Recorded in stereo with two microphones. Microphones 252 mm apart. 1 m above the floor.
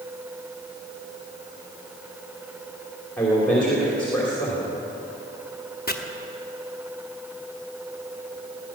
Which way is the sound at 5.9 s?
40° left (ahead or behind).